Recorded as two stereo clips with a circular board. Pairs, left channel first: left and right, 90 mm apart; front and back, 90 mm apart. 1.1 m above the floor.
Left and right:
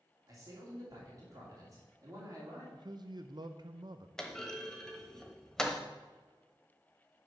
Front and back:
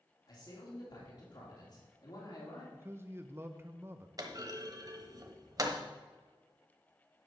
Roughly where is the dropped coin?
I don't hear a dropped coin.